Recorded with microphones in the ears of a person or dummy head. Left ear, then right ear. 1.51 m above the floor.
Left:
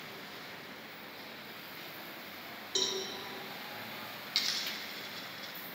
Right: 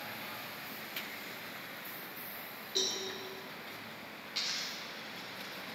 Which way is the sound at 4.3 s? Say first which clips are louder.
Left 3 dB; 40° left (ahead or behind).